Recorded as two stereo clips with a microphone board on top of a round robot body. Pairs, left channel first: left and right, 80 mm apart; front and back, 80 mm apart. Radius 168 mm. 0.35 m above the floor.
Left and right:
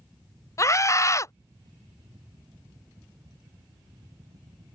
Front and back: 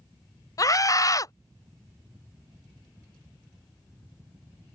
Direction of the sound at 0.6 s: 40° left.